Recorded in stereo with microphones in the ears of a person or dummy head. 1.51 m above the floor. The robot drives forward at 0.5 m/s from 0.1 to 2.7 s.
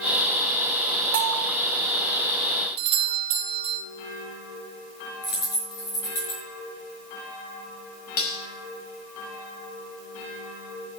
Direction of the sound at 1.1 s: 60° right (ahead or behind).